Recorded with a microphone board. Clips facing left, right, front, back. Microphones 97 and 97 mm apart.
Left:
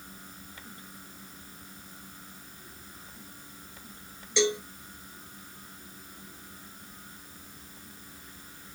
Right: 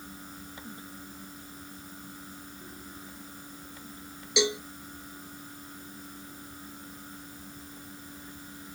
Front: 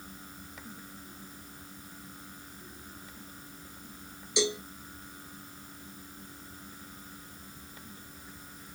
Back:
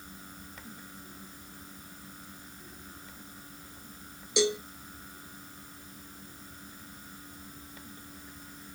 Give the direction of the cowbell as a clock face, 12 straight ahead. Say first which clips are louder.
Left 1 dB, back 3 dB; 6 o'clock.